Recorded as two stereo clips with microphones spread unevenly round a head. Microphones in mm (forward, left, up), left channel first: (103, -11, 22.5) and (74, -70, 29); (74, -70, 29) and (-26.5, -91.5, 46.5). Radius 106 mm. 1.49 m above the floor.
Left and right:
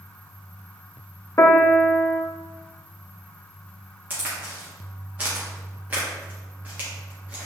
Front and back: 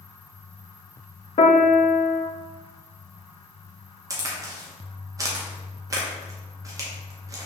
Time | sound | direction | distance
1.4 | a piano | 25° left | 0.6 m
4.1 | a crack | 165° right | 0.7 m